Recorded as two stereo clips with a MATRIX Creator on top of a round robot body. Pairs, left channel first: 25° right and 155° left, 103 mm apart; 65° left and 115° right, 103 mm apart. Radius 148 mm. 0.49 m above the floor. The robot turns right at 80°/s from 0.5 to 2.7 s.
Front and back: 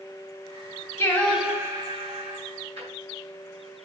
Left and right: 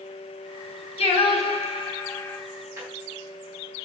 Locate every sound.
1.0 s singing: 40° left, 1.9 m; by 2.4 s 150° left, 1.9 m
2.8 s a drawer: straight behind, 3.5 m